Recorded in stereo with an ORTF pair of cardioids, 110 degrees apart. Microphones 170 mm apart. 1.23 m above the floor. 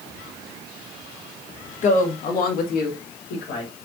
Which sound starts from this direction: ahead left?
A woman speaking, at 1.8 s.